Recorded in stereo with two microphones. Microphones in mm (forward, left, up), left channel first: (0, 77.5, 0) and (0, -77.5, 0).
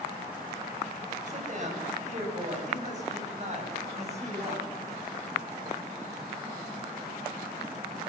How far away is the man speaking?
About 9 m.